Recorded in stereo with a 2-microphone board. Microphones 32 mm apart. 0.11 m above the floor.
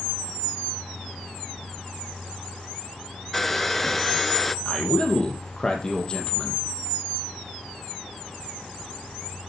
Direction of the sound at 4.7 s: 30° left (ahead or behind).